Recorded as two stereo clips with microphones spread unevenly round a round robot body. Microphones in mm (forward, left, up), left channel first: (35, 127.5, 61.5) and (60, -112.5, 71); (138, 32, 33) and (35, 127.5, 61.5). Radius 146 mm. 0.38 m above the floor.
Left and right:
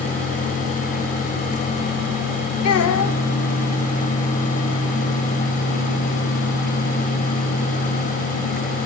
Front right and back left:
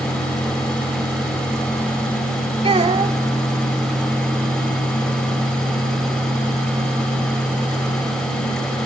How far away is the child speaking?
About 2.5 m.